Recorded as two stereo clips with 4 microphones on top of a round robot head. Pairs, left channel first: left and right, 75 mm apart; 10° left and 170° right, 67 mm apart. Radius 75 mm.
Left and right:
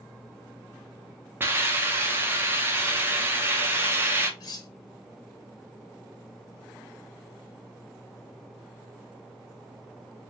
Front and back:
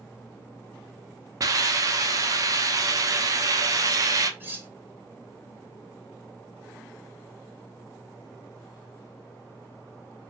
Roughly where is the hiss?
Behind right.